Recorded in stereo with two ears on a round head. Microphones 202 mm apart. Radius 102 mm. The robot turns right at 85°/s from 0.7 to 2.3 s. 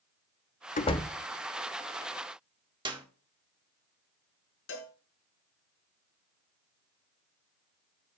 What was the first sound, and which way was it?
A door slam, 35° left (ahead or behind).